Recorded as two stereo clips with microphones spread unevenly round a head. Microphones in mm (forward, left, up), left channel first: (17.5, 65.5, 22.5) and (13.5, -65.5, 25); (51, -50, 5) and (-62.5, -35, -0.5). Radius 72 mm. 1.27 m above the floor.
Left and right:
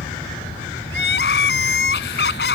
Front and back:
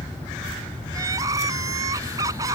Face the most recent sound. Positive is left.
turn(degrees=100)